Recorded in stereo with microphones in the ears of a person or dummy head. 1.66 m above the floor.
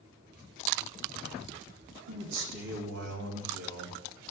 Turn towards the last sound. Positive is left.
turn(degrees=-75)  # may be behind; listen again after turning